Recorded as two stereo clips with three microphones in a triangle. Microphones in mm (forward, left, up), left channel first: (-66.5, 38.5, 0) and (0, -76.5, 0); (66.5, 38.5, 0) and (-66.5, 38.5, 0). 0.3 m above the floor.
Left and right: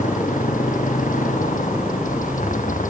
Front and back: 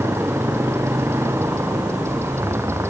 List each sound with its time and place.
0.0 s a motorcycle: 110° left